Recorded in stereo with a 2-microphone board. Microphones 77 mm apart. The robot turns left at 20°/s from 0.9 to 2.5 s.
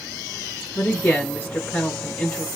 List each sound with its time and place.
0.8 s a woman speaking: 35° left, 4 m; by 2.5 s 5° left, 4 m